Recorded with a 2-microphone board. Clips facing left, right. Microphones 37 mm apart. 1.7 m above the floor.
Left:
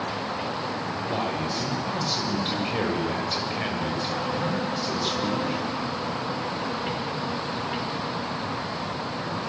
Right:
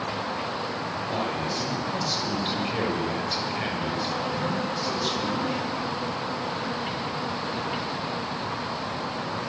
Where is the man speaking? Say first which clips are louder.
Left 1 dB; 10° left (ahead or behind), 7 m.